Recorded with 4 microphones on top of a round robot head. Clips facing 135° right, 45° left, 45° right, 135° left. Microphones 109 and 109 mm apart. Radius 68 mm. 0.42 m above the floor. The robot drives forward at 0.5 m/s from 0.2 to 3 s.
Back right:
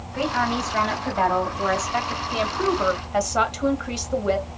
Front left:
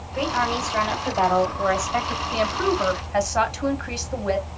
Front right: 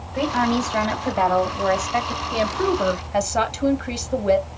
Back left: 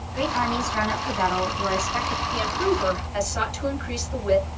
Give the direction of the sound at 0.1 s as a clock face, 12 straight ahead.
1 o'clock.